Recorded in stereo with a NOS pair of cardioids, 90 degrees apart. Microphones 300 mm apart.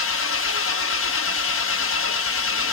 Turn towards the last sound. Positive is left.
turn(degrees=45)